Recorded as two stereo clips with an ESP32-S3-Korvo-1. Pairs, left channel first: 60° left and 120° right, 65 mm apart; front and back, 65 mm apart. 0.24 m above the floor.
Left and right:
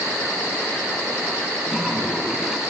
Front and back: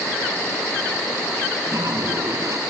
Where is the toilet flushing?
160° left, 1.6 m.